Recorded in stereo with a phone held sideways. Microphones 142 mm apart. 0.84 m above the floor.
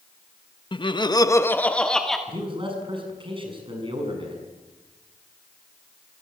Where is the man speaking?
35° right (ahead or behind), 6.5 m.